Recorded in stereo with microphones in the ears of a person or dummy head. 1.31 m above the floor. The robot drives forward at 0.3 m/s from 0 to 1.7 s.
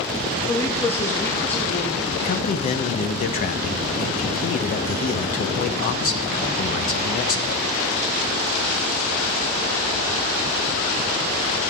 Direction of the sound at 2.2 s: 45° left (ahead or behind).